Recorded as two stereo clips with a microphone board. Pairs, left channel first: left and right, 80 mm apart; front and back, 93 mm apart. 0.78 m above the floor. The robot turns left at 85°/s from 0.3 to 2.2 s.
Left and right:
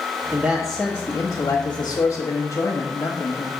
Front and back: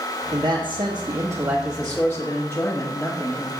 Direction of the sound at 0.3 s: 145° right.